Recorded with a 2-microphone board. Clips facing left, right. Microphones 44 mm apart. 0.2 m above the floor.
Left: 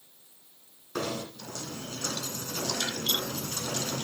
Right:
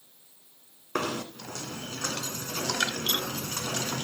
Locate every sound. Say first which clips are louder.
0.9 s knocking: right 2 dB; 55° right (ahead or behind), 1.9 m